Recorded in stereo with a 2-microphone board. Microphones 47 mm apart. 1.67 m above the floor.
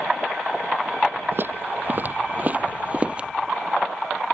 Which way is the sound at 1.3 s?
50° right (ahead or behind).